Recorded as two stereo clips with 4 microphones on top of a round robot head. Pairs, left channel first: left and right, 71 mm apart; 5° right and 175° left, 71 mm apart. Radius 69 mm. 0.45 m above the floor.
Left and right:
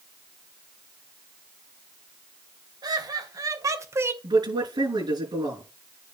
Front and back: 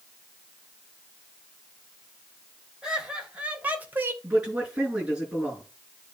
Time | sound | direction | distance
2.8 | laughter | 105° right | 3.5 m
4.2 | a man speaking | 110° right | 7 m